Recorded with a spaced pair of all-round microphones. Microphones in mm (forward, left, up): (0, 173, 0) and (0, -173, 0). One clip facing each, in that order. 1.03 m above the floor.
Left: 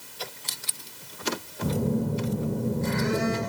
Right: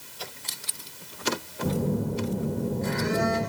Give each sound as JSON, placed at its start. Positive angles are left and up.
{"t": 1.6, "sound": "a phone buzzing", "side_deg": 30, "distance_m": 1.6}